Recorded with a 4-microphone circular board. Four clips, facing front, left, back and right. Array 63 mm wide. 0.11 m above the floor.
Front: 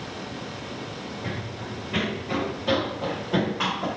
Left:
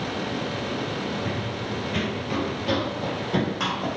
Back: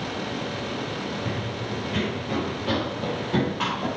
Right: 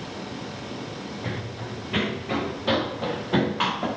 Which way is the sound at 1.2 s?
75° right.